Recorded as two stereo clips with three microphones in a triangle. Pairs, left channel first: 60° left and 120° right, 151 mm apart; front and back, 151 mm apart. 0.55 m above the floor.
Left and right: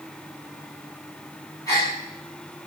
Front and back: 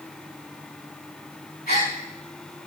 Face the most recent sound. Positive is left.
turn(degrees=-5)